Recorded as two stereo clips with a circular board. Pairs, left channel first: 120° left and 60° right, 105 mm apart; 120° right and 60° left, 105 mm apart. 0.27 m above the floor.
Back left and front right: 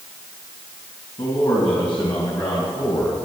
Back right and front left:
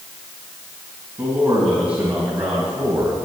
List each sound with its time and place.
1.2 s a man speaking: 125° left, 2.5 m; by 3.2 s 145° left, 2 m